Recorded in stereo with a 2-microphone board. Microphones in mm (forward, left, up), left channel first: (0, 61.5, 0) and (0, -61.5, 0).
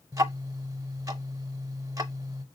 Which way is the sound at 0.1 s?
25° right (ahead or behind).